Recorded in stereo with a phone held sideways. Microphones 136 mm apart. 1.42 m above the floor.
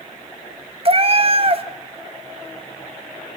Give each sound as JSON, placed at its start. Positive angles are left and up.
{"t": 0.8, "sound": "a cat meowing", "side_deg": -45, "distance_m": 0.9}